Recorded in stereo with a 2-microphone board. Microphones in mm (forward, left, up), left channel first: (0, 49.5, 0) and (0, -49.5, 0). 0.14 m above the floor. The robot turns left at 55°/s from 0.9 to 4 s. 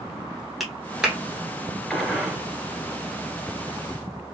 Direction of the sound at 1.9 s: 5° left.